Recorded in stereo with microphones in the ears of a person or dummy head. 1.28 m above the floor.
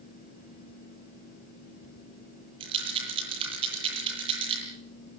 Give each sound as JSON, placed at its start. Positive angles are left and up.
{"t": 2.6, "sound": "a rattle", "side_deg": -35, "distance_m": 9.5}